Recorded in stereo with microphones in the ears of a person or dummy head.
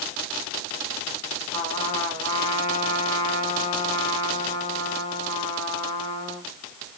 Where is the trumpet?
25° left (ahead or behind), 2.5 m.